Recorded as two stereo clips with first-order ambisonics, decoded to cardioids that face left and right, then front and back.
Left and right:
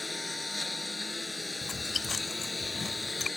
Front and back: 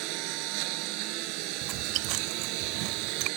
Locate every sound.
0.0 s a lawn mower: 175° left
1.6 s chewing: 160° left